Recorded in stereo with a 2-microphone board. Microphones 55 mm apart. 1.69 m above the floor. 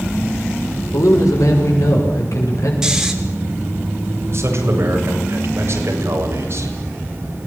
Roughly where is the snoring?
Centre.